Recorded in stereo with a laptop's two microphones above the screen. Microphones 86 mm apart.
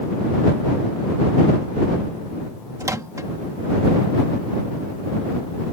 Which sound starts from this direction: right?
A microwave, at 2.8 s.